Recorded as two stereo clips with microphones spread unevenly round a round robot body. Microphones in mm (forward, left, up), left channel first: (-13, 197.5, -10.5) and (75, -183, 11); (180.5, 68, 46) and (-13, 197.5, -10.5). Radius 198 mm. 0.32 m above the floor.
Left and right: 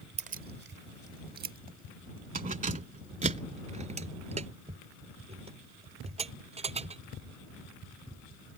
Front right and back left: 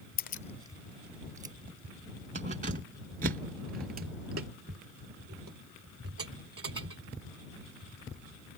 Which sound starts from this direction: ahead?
Keys jangling, at 0.2 s.